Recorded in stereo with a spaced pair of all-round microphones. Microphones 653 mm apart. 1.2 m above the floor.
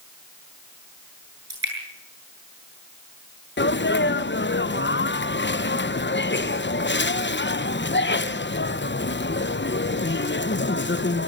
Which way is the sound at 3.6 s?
20° left (ahead or behind).